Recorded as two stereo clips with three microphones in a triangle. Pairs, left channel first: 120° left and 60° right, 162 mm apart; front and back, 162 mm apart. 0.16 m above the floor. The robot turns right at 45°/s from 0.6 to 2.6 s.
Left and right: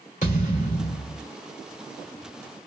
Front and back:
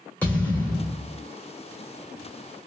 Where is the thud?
80° left, 1.7 m; by 1.2 s 110° left, 1.7 m.